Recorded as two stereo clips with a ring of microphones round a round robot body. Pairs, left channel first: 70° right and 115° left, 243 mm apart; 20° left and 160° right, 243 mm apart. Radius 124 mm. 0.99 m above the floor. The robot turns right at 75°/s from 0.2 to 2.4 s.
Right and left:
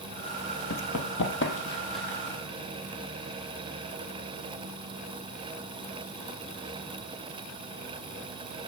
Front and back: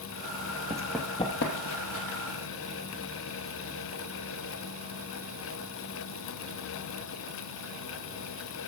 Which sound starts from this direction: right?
Running footsteps, at 0.7 s.